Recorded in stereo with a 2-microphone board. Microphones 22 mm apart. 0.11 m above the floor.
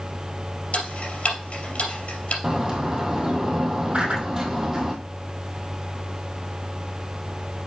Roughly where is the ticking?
Left.